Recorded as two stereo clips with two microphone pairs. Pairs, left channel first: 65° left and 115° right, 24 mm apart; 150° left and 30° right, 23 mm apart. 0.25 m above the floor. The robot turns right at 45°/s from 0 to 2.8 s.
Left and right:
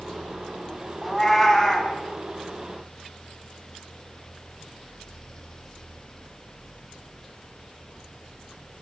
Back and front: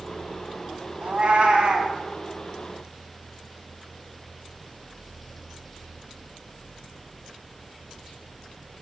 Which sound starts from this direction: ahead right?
A cat meowing, at 1.0 s.